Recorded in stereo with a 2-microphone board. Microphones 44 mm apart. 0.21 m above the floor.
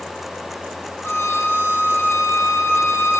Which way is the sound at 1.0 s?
65° left (ahead or behind).